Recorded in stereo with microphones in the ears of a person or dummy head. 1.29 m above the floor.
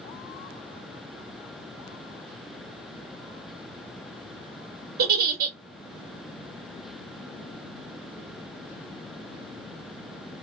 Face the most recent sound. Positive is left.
turn(degrees=-60)  # may be behind; listen again after turning